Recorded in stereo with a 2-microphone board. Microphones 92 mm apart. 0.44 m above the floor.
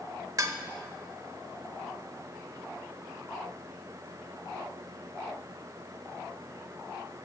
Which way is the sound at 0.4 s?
40° right (ahead or behind).